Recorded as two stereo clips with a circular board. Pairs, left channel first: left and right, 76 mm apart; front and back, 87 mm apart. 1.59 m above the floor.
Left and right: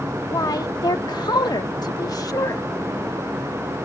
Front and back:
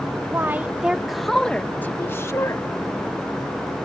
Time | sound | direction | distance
0.3 | a woman speaking | 120° left | ?